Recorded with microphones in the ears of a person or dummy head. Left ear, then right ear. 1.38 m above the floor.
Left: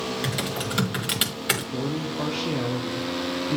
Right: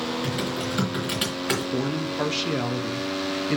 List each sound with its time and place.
0.2 s typing on a keyboard: 25° left (ahead or behind), 1.4 m
1.7 s a man speaking: 40° right (ahead or behind), 0.5 m